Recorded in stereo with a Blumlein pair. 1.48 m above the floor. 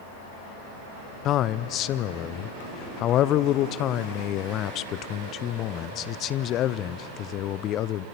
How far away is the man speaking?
About 0.6 m.